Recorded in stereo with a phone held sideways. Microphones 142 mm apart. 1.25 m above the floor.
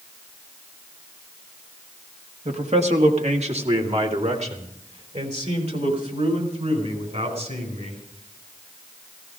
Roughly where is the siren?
I don't hear a siren.